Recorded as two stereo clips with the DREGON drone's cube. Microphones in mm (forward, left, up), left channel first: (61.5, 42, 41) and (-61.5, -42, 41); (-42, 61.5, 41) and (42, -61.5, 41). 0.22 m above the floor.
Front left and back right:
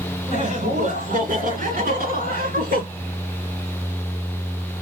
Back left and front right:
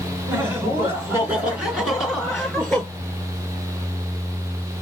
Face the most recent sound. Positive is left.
turn(degrees=-150)